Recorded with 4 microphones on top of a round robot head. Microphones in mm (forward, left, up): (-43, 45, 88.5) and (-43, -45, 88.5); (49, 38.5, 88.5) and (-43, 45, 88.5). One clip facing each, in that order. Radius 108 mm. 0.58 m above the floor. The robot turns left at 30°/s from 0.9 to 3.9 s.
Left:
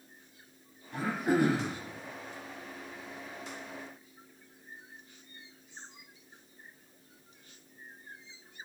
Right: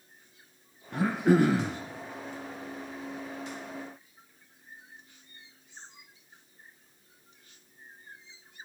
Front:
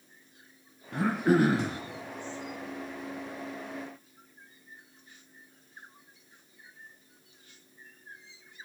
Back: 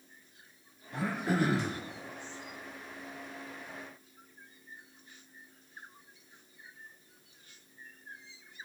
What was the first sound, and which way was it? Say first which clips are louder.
Throat clearing: right 5 dB, front 7 dB; 45° right.